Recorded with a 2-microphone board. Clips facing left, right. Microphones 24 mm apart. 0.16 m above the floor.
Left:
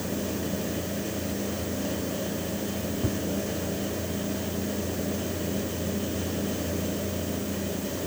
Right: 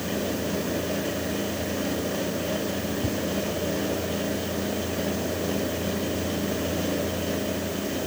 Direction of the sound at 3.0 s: 10° right (ahead or behind).